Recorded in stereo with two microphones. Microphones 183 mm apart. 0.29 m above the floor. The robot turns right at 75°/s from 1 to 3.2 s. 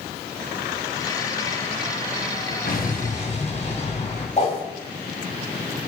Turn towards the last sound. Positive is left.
turn(degrees=40)  # may be behind; listen again after turning